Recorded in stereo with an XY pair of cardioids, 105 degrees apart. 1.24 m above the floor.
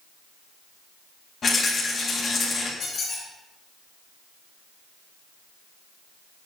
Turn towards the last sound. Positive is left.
turn(degrees=45)